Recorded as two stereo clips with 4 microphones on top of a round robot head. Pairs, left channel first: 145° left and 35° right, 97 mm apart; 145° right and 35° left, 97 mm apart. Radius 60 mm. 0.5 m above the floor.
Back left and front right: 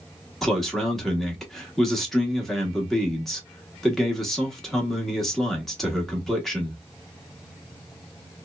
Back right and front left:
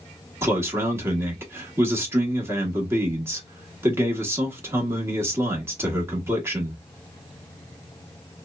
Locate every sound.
0.4 s a man speaking: 65° left, 1.0 m